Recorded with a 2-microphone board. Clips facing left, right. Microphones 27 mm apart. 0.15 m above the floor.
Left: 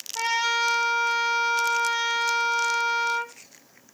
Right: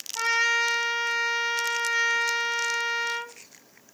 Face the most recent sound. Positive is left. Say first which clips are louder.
# right 1 dB
turn(degrees=5)  # may be behind; listen again after turning